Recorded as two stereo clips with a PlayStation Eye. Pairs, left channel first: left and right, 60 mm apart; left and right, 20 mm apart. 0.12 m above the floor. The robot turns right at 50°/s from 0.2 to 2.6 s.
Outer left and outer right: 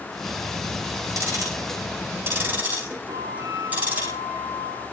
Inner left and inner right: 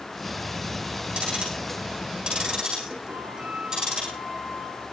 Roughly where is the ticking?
Right.